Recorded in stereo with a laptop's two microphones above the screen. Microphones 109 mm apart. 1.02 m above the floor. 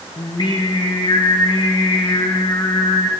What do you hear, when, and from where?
0.2 s singing: 45° left (ahead or behind), 1.0 m